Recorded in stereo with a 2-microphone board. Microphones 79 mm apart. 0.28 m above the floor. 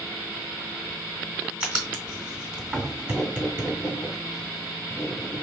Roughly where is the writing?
Right.